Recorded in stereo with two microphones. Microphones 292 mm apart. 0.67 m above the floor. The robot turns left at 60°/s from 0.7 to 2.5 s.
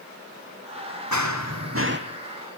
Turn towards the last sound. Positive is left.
turn(degrees=-175)